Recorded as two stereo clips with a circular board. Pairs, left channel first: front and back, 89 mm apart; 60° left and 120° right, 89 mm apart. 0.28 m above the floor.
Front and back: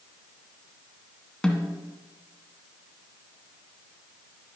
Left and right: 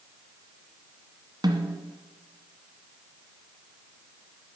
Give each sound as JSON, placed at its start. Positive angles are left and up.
{"t": 1.4, "sound": "a snare drum", "azimuth_deg": -85, "distance_m": 1.5}